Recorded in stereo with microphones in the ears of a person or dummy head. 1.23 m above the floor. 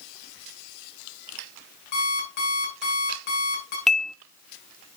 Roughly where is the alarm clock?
Left.